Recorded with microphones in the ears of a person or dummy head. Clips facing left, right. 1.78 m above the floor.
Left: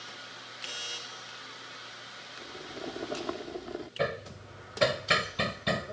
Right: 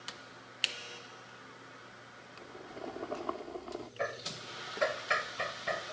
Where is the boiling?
20° left (ahead or behind).